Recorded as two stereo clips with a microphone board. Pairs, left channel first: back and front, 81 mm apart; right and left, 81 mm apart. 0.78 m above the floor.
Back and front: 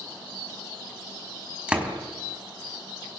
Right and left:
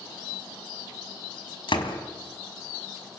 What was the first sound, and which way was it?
A door slam, 75° right.